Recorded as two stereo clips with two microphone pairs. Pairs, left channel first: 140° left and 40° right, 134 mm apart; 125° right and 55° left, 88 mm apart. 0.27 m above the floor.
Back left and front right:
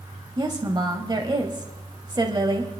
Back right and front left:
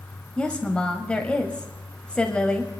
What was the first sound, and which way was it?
A woman speaking, 55° right.